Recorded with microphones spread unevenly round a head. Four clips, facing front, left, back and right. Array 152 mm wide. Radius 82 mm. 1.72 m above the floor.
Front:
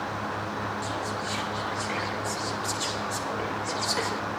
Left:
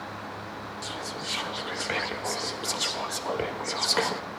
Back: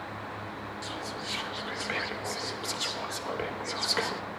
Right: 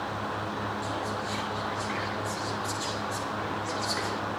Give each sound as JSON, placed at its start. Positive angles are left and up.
{"t": 0.8, "sound": "whispering", "azimuth_deg": 105, "distance_m": 0.8}